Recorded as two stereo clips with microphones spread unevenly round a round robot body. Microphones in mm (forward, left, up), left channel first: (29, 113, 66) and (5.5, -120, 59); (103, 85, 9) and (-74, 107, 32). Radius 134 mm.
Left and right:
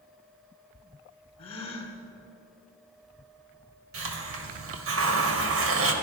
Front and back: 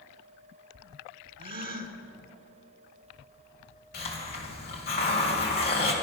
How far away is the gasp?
About 2 m.